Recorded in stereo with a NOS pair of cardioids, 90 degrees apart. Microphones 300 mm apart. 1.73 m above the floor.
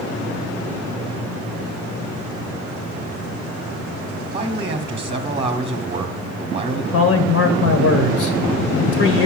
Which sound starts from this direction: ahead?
A man speaking, at 4.3 s.